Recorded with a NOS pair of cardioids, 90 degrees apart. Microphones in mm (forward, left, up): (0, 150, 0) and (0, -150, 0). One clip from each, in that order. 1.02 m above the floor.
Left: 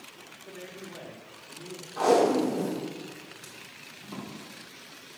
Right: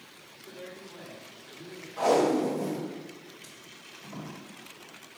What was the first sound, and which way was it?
A man speaking, 45° left.